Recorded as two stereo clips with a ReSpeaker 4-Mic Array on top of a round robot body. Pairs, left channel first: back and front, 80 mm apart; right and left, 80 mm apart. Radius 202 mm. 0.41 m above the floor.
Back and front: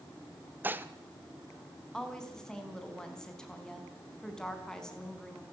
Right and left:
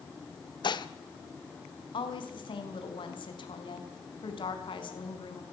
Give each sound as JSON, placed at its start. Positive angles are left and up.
{"t": 0.6, "sound": "dishes clattering", "azimuth_deg": -65, "distance_m": 1.4}
{"t": 1.9, "sound": "a woman speaking", "azimuth_deg": -95, "distance_m": 5.0}